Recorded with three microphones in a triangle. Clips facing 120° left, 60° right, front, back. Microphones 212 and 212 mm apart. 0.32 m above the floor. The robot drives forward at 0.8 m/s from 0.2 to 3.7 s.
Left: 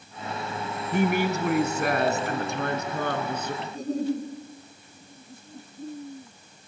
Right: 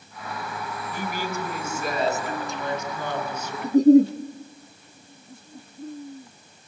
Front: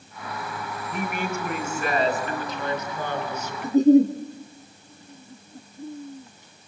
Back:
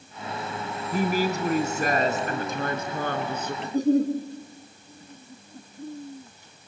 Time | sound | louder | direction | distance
0.9 | a woman speaking | left 8 dB, back 5 dB | 125° left | 3 m
3.6 | a giggle | right 15 dB, front 6 dB | 70° right | 3.5 m